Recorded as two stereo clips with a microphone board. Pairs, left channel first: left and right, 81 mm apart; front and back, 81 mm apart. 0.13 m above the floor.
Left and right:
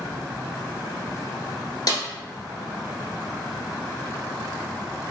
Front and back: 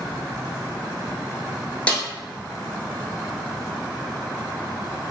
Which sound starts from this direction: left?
A snare drum, at 1.9 s.